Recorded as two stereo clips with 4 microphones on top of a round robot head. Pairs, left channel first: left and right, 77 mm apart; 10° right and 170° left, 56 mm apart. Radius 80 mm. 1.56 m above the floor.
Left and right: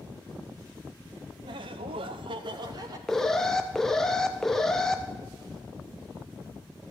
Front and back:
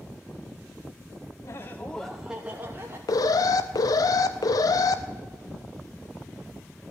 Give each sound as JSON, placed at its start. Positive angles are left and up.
{"t": 1.4, "sound": "laughter", "azimuth_deg": -55, "distance_m": 0.6}
{"t": 3.1, "sound": "an alarm", "azimuth_deg": 5, "distance_m": 0.6}